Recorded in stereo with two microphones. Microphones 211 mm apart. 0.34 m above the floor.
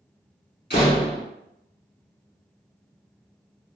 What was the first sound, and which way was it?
A door slam, 50° left (ahead or behind).